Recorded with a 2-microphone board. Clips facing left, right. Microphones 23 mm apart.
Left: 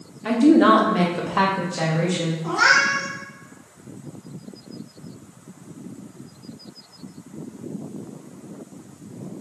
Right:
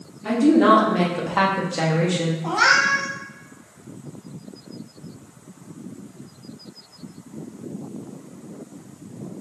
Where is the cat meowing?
75° right (ahead or behind), 2 m.